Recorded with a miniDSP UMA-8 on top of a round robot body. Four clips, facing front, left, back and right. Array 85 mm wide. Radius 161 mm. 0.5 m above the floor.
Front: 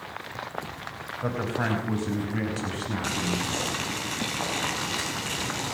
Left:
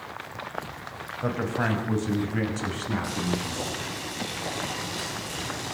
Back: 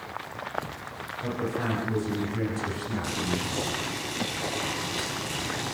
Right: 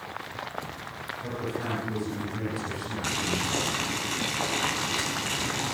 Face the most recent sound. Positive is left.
turn(degrees=-60)